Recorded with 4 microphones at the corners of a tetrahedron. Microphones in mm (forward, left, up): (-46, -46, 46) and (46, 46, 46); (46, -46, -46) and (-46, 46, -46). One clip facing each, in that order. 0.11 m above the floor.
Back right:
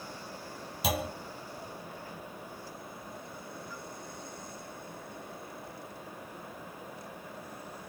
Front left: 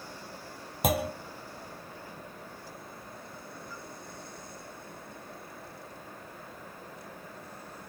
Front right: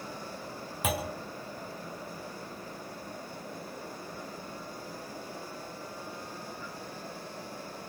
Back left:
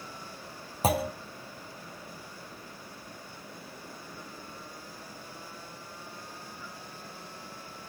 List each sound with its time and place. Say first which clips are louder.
0.8 s a clunk: front left 4 dB, back left 5 dB; 85° left, 2.5 m